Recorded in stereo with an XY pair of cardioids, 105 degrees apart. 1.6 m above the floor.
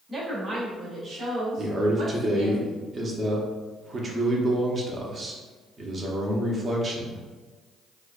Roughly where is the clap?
I don't hear a clap.